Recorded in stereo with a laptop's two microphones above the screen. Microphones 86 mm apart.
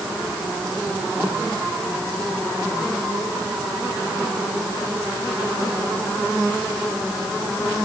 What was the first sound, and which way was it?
Only background noise.